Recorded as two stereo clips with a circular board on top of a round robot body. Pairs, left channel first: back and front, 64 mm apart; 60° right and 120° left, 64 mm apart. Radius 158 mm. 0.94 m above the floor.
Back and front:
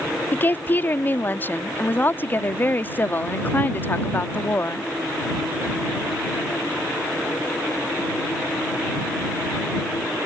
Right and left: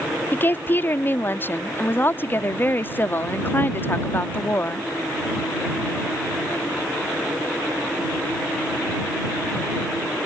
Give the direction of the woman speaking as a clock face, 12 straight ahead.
4 o'clock.